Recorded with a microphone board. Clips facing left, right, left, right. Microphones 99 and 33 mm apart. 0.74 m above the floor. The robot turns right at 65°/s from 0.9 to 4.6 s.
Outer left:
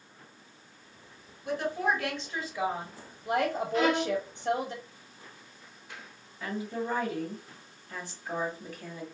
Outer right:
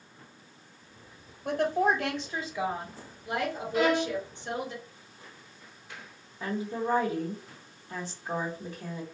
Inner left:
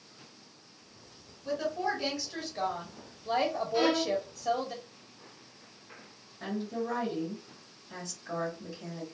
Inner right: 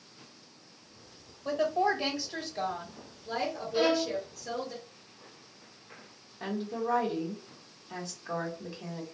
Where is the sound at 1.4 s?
70° right, 1.2 m; by 4.7 s 135° left, 1.2 m.